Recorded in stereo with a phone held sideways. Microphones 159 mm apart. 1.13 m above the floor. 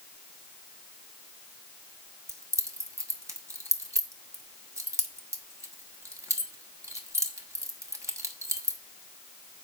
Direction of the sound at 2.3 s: 20° right (ahead or behind).